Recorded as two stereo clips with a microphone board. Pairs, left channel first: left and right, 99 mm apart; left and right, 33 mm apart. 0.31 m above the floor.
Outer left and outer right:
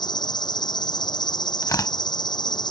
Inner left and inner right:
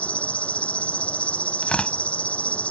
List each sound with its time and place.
0.0 s an insect: 45° left (ahead or behind)
1.6 s tearing paper: 35° left (ahead or behind)